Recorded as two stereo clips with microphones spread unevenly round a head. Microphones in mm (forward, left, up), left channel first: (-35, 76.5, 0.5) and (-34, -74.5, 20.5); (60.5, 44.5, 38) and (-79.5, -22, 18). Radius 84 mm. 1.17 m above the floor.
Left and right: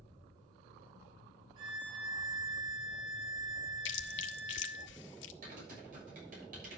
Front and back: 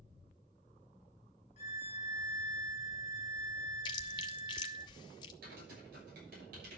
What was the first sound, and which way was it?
A violin, 25° right.